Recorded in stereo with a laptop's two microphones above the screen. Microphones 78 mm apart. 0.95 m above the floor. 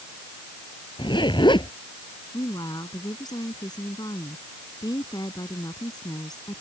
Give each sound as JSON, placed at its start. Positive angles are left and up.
{"t": 1.0, "sound": "a zipper", "side_deg": 85}
{"t": 2.3, "sound": "a woman speaking", "side_deg": 55}